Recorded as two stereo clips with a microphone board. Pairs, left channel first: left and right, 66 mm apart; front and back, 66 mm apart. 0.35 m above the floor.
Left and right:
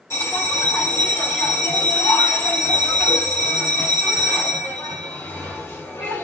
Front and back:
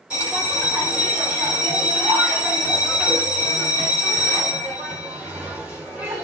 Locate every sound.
0.1 s a bell: 115° left, 1.9 m